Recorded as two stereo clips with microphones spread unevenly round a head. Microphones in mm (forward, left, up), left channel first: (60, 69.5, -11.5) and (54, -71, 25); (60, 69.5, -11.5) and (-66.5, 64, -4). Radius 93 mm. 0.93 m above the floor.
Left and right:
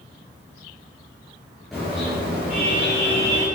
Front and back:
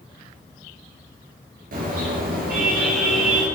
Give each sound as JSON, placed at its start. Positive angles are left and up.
{"t": 1.7, "sound": "a car horn", "azimuth_deg": 180, "distance_m": 7.0}